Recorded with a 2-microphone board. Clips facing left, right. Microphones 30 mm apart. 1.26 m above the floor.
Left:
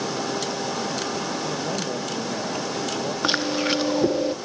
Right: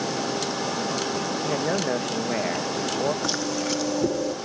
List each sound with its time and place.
1.4 s a man speaking: 70° right (ahead or behind), 1.9 m
3.2 s chewing: 40° left (ahead or behind), 0.9 m